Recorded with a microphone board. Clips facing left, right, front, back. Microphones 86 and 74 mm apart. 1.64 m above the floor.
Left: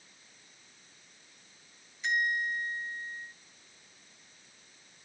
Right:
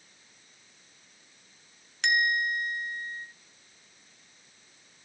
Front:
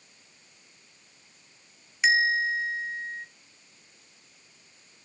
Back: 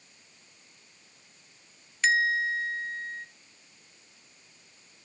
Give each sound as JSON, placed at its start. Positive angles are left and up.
{"t": 2.0, "sound": "a bell", "azimuth_deg": -75, "distance_m": 0.7}